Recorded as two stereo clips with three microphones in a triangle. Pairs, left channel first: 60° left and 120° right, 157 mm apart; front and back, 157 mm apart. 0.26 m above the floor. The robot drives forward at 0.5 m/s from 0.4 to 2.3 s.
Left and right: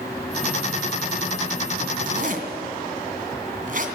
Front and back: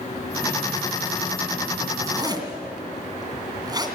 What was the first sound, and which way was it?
A zipper, 115° right.